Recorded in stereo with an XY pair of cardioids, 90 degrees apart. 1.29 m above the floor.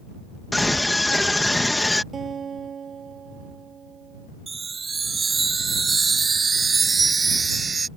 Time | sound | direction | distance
0.5 | a scream | 15° left | ?
2.1 | a guitar | 50° right | ?
4.5 | a chime | 35° right | ?